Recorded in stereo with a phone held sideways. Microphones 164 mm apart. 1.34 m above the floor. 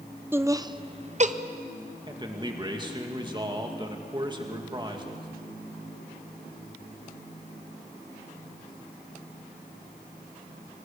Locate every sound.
0.3 s laughter: 15° right (ahead or behind), 0.8 m; by 1.3 s 50° right (ahead or behind), 0.8 m
2.1 s a man speaking: 30° right (ahead or behind), 2 m